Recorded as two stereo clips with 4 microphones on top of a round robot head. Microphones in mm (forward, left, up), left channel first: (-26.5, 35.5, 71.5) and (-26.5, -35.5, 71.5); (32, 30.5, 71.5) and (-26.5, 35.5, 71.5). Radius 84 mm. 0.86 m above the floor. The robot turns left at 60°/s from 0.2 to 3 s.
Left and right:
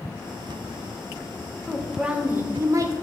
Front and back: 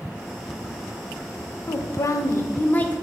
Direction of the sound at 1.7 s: 10° left.